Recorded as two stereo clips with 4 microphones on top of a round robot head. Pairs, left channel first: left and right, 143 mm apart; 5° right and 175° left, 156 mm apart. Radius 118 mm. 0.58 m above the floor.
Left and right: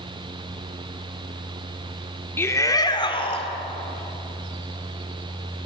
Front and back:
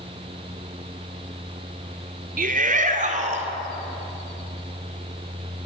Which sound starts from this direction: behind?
A shout, at 2.4 s.